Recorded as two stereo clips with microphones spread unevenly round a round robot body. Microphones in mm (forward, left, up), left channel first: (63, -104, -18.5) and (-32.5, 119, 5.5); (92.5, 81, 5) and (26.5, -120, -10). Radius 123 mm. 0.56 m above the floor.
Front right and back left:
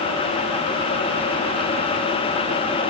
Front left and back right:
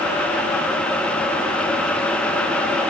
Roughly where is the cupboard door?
I don't hear a cupboard door.